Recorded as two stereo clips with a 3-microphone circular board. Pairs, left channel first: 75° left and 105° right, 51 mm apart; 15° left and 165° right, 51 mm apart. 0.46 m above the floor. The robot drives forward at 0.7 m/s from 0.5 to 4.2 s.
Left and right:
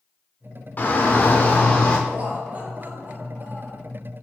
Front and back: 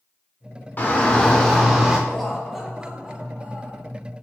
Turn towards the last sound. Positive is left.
turn(degrees=-145)